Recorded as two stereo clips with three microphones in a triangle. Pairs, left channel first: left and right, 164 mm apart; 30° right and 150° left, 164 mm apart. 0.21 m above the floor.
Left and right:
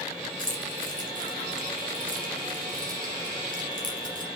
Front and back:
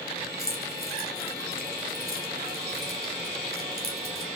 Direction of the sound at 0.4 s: 55° right.